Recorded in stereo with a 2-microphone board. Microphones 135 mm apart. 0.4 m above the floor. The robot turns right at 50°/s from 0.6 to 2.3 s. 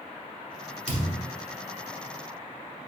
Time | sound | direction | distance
0.9 | a thud | 80° right | 1.5 m